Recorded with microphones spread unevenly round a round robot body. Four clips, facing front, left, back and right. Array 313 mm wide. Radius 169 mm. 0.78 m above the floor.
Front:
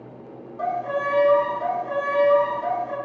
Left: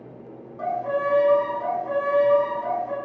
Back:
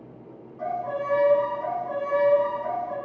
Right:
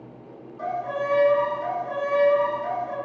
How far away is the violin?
About 0.8 m.